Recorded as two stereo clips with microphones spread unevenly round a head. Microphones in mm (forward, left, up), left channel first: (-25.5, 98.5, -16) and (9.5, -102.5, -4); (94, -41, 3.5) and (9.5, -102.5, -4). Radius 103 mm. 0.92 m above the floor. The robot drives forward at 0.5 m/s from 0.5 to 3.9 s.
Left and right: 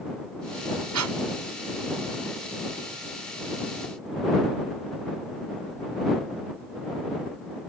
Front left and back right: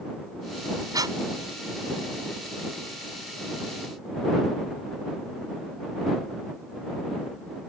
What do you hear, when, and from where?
0.9 s breathing: 90° right